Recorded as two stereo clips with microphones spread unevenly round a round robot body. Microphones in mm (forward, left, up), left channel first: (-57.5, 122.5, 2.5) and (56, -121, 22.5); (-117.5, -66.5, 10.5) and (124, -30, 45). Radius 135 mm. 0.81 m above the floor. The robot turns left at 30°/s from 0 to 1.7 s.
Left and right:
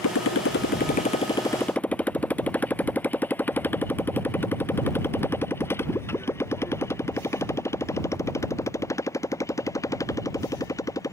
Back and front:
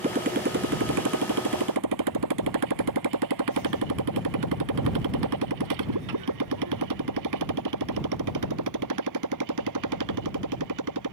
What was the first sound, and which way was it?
A motorcycle, 80° left.